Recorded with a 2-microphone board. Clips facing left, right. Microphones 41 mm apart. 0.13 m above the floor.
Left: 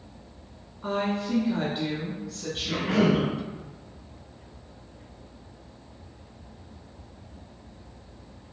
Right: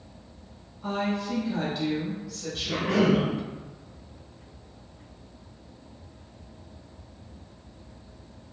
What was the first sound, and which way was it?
A woman speaking, 25° left (ahead or behind).